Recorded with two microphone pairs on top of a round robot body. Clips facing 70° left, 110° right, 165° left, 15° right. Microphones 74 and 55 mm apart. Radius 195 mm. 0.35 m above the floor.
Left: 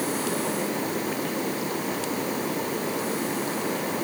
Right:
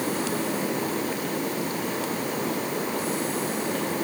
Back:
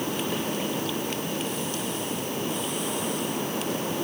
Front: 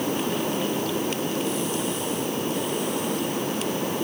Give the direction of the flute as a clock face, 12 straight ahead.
I don't hear a flute.